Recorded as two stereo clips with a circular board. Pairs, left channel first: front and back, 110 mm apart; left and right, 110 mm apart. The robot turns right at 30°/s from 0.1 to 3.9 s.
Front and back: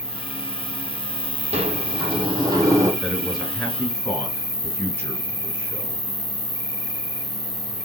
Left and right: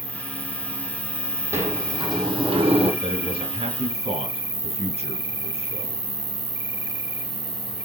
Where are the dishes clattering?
No dishes clattering in this recording.